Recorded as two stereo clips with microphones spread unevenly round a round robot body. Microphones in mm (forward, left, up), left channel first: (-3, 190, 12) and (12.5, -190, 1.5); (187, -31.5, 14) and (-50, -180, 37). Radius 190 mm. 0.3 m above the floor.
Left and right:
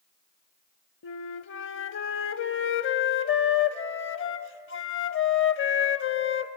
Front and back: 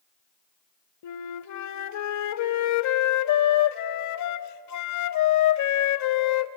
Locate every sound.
1.0 s a flute: 35° left, 0.6 m